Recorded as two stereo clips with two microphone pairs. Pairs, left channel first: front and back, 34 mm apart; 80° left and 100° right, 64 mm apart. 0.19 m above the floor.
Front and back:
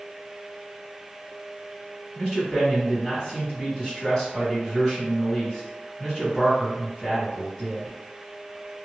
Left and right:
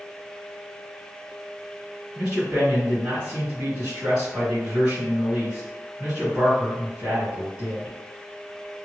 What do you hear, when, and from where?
2.1 s a man speaking: 45° right, 1.7 m